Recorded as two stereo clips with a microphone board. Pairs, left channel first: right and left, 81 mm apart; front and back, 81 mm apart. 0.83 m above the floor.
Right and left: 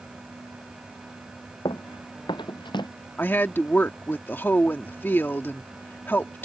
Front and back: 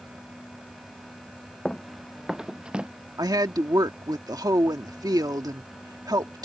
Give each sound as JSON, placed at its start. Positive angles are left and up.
{"t": 1.6, "sound": "running footsteps", "azimuth_deg": -85}
{"t": 3.2, "sound": "a woman speaking", "azimuth_deg": -150}